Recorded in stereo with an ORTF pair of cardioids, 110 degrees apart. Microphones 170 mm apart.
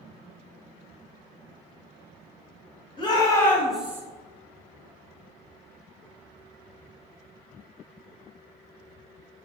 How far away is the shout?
About 1.0 m.